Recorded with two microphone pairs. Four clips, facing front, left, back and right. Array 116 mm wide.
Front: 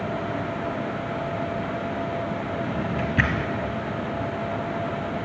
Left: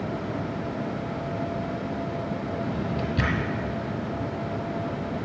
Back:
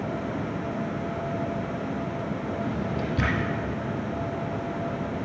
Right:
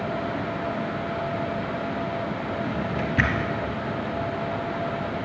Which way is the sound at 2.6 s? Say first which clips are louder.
Right 1 dB, front 2 dB; 45° right.